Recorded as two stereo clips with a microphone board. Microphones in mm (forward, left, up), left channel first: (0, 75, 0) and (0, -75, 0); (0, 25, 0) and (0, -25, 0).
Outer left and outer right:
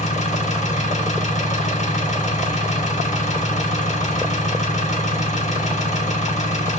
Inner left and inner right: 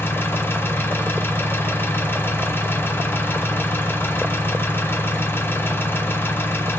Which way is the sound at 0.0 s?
50° left (ahead or behind).